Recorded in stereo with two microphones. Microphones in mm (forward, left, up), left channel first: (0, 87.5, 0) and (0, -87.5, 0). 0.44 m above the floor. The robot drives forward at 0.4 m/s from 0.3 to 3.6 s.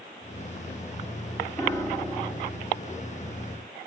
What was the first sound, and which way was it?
A piano, 20° left (ahead or behind).